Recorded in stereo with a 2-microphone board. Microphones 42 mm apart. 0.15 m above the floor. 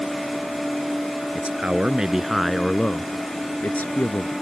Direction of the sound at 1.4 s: 35° right (ahead or behind).